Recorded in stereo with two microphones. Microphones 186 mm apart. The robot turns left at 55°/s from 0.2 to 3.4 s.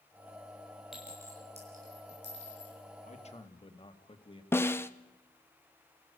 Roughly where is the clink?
Centre.